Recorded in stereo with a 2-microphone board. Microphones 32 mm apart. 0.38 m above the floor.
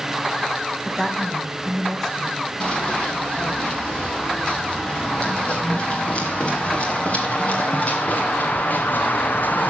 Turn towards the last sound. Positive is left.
turn(degrees=60)  # may be behind; listen again after turning